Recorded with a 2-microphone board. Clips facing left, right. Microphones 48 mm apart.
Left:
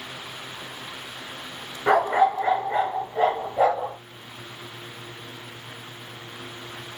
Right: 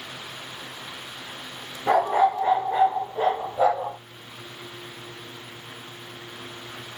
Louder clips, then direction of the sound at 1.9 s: Left 1 dB; 60° left (ahead or behind).